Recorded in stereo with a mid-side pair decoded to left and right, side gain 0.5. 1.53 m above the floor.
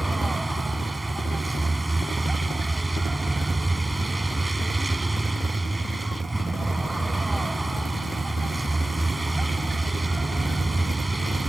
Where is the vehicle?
15° right.